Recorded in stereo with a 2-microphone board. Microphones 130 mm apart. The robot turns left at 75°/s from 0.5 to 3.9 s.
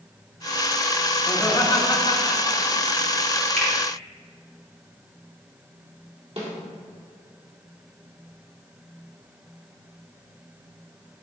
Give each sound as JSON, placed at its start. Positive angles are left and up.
{"t": 1.3, "sound": "laughter", "side_deg": 5, "distance_m": 1.4}
{"t": 3.6, "sound": "a finger snap", "side_deg": 5, "distance_m": 2.5}
{"t": 6.4, "sound": "a snare drum", "side_deg": -50, "distance_m": 2.0}